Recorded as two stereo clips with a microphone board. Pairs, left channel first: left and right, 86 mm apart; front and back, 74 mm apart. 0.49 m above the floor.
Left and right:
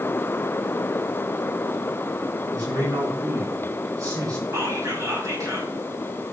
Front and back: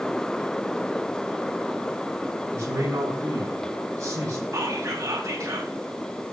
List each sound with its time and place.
2.5 s a man speaking: 130° right, 5 m
4.5 s whispering: 135° right, 3.5 m